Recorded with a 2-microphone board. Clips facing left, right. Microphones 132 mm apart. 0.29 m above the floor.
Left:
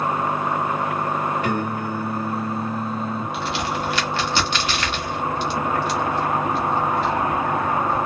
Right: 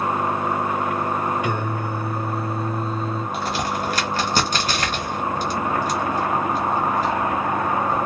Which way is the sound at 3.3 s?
40° right (ahead or behind).